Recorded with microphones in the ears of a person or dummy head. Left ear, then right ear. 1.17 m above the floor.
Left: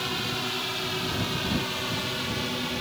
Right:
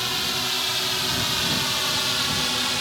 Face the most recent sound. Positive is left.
turn(degrees=-55)  # may be behind; listen again after turning